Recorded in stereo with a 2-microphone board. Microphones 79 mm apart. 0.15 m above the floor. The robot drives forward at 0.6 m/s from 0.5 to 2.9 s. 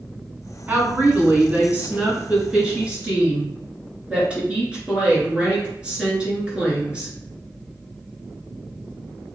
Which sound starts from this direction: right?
A woman speaking, at 0.7 s.